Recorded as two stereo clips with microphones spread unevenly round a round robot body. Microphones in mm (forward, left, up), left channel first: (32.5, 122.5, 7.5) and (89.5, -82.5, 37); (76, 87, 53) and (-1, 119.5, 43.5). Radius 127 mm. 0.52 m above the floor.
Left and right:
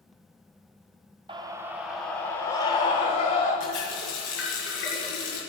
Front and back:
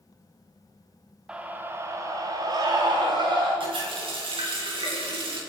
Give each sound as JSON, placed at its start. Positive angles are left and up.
{"t": 1.3, "sound": "a scream", "azimuth_deg": -140, "distance_m": 0.8}
{"t": 3.6, "sound": "a running tap", "azimuth_deg": 150, "distance_m": 5.0}